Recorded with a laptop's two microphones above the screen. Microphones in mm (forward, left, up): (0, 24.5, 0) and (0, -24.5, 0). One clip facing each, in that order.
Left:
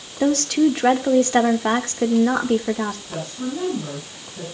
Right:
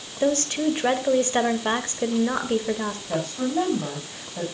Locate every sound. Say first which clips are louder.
0.2 s a woman speaking: left 5 dB; 70° left (ahead or behind), 2 m
3.1 s a woman speaking: right 3 dB; 30° right (ahead or behind), 6 m